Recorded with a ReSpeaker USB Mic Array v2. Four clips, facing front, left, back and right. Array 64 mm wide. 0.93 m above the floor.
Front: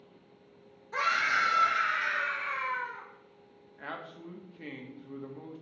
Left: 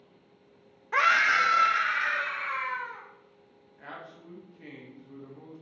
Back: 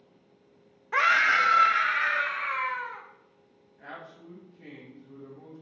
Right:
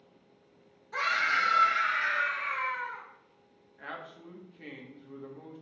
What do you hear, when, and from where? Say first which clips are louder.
0.9 s a scream: left 6 dB, back 6 dB; 140° left, 0.6 m; by 3.0 s 170° left, 1.8 m
3.8 s a man speaking: right 2 dB, front 2 dB; 15° right, 1.2 m